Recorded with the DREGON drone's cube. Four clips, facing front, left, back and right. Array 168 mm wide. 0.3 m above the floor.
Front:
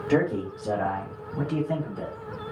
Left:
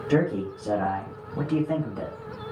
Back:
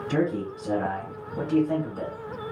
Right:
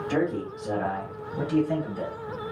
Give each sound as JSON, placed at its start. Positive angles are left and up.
{"t": 0.1, "sound": "a man speaking", "azimuth_deg": 15, "distance_m": 1.0}